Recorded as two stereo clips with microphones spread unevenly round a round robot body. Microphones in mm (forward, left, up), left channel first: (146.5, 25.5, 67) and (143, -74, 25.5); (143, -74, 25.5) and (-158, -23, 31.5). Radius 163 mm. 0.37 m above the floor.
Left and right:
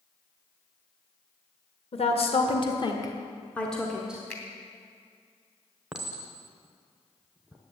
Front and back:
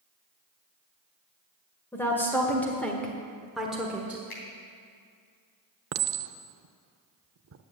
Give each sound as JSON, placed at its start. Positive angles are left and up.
{"t": 1.9, "sound": "a woman speaking", "azimuth_deg": 70, "distance_m": 1.9}
{"t": 4.3, "sound": "a finger snap", "azimuth_deg": 10, "distance_m": 3.0}
{"t": 5.9, "sound": "a clink", "azimuth_deg": -155, "distance_m": 0.7}